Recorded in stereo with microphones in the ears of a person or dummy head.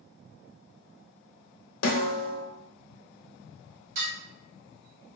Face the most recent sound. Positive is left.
turn(degrees=-65)  # may be behind; listen again after turning